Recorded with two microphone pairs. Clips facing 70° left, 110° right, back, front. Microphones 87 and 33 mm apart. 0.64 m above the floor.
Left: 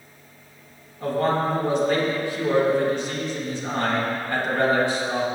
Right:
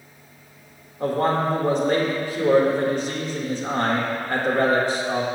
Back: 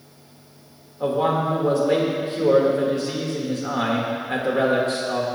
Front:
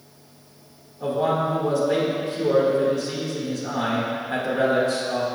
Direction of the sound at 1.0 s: 150° right.